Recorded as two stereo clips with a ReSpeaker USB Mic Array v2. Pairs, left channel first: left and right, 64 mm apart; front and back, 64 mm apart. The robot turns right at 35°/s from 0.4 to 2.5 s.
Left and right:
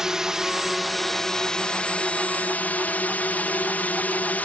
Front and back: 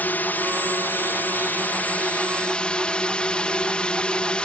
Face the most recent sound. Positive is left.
turn(degrees=55)